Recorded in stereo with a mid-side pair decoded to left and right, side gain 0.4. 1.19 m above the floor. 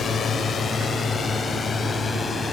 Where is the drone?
60° left; by 2.5 s 45° left.